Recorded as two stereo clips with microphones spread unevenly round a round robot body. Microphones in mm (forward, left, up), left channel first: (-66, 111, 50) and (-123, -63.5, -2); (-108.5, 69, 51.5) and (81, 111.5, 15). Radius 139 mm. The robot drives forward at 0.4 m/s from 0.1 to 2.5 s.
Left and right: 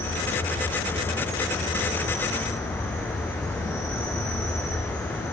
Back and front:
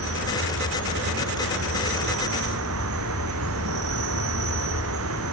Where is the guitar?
No guitar in this recording.